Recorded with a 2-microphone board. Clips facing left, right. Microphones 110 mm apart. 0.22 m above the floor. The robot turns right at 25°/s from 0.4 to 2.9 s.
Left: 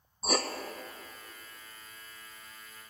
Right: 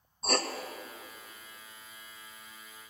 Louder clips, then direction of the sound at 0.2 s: Even; 5° left (ahead or behind).